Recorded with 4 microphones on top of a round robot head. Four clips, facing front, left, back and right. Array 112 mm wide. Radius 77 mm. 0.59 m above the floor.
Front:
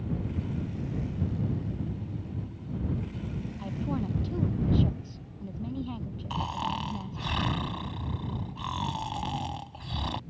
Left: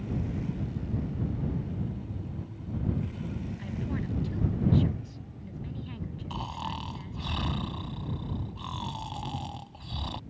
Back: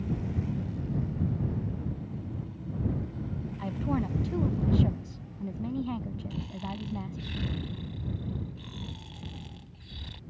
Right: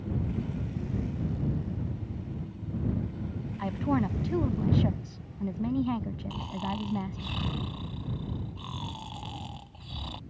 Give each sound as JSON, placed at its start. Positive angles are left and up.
{"t": 3.6, "sound": "a woman speaking", "azimuth_deg": -100}
{"t": 6.3, "sound": "snoring", "azimuth_deg": 10}